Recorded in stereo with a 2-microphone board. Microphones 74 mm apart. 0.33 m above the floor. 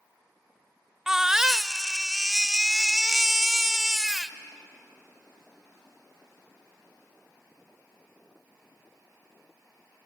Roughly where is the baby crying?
Centre.